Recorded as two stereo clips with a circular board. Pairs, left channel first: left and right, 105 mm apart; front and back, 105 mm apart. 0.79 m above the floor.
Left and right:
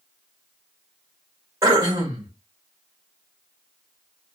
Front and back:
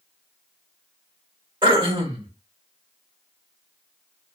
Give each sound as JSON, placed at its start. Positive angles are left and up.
{"t": 1.6, "sound": "throat clearing", "azimuth_deg": -145, "distance_m": 1.3}